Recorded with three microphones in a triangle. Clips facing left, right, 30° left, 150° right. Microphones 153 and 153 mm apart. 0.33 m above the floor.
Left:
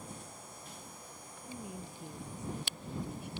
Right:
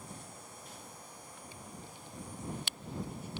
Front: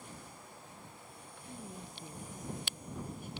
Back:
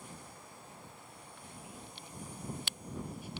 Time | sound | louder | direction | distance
1.5 | a woman speaking | left 8 dB, front 5 dB | 80° left | ?